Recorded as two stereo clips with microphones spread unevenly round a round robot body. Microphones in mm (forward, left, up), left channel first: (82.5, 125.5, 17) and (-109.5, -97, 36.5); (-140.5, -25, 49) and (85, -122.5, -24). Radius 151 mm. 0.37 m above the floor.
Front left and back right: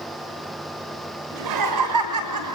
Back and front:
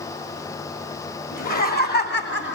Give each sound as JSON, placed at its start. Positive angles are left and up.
{"t": 1.3, "sound": "laughter", "azimuth_deg": -145, "distance_m": 3.0}